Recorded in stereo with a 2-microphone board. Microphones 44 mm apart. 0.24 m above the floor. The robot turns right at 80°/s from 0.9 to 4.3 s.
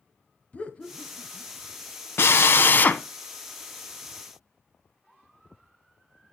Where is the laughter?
30° left (ahead or behind), 1.1 m; by 1.5 s 25° left (ahead or behind), 1.1 m.